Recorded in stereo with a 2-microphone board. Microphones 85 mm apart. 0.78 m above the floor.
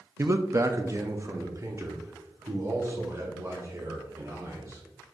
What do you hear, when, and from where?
0.2 s a man speaking: 35° right (ahead or behind), 0.5 m